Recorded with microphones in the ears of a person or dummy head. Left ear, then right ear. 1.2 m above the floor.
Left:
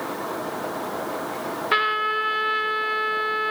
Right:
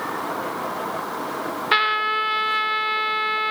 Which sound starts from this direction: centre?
A trumpet, at 1.7 s.